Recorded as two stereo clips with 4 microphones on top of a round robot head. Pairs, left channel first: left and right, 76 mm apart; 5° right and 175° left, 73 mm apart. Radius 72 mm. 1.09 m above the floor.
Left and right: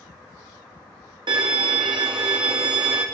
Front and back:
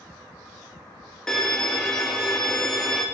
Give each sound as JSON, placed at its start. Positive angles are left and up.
{"t": 1.3, "sound": "a violin", "azimuth_deg": -85, "distance_m": 1.0}